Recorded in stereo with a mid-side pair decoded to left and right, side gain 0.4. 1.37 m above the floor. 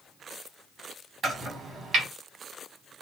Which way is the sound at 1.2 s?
55° right.